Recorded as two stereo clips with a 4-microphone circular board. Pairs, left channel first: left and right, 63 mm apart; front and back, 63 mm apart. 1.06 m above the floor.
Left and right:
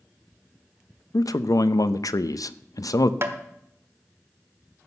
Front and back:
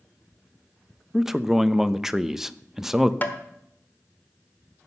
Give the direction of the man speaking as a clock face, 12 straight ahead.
9 o'clock.